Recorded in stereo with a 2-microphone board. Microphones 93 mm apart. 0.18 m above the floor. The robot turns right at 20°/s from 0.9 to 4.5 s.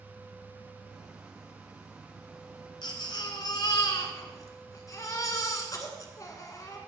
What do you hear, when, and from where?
2.8 s a baby crying: 95° left, 1.8 m; by 6.8 s 130° left, 1.8 m